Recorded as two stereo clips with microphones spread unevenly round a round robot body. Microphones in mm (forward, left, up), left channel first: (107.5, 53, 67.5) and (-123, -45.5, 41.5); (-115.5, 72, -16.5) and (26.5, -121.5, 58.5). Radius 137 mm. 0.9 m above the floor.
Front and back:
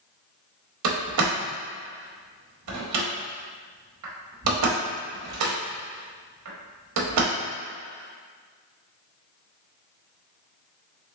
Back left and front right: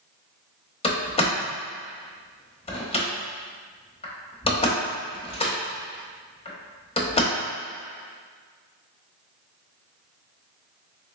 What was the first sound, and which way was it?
A door slam, 165° right.